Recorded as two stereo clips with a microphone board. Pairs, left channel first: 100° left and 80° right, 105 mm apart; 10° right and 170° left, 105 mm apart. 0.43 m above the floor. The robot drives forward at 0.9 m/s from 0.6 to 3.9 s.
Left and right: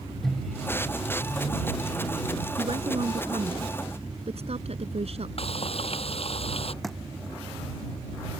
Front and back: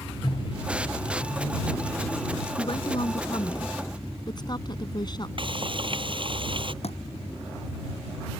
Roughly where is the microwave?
Ahead.